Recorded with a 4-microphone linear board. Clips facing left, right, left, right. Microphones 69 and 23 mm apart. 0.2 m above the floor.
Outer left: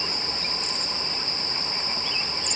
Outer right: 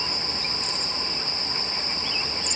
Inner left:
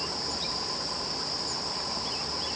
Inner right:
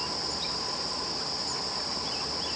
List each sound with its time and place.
Only background noise.